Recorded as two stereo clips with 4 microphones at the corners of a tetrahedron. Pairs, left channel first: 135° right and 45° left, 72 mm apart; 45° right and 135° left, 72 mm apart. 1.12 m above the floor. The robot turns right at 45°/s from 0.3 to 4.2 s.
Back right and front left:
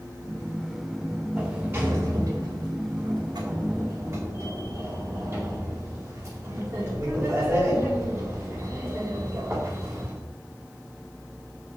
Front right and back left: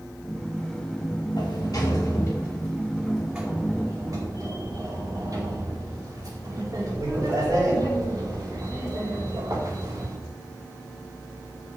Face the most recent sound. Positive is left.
turn(degrees=90)